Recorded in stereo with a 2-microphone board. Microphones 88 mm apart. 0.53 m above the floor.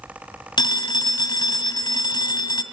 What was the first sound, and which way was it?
A phone ringing, 60° left (ahead or behind).